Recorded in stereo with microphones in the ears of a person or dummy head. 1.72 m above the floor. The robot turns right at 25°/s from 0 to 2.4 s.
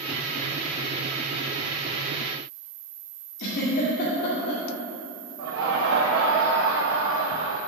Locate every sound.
3.4 s a giggle: 35° left (ahead or behind), 2.0 m
5.4 s laughter: 60° right (ahead or behind), 0.7 m